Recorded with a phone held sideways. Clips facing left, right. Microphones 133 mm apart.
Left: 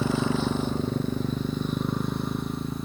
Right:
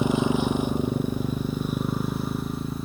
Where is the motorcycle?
15° right (ahead or behind); by 2.9 s 5° right (ahead or behind).